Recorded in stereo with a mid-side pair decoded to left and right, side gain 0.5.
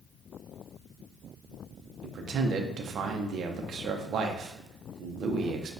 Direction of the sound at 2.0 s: 55° right.